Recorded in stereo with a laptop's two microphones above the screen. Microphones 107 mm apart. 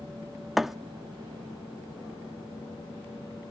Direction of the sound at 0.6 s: 5° right (ahead or behind).